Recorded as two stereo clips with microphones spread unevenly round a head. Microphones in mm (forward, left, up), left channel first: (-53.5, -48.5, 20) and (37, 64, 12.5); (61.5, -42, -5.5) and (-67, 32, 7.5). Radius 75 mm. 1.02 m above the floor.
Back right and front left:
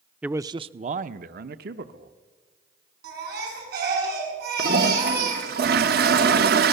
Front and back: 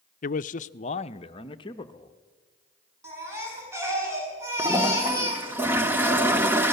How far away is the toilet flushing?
About 1.0 m.